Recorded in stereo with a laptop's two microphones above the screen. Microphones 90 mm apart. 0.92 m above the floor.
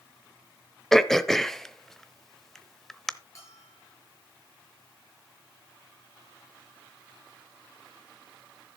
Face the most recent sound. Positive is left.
turn(degrees=35)  # may be behind; listen again after turning